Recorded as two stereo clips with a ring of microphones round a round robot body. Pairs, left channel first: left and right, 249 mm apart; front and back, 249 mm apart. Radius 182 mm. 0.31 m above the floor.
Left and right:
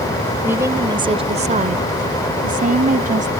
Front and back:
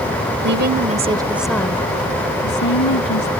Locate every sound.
0.4 s a woman speaking: 170° right; by 3.3 s 30° right